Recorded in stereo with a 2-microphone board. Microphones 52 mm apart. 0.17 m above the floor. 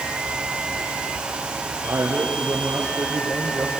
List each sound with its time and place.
1.8 s a man speaking: 55° right (ahead or behind), 3.5 m; by 3.8 s 50° right (ahead or behind), 4 m